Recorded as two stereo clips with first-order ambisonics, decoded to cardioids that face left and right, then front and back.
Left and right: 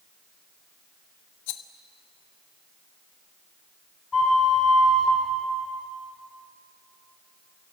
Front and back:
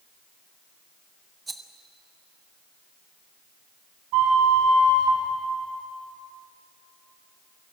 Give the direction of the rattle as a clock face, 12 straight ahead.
9 o'clock.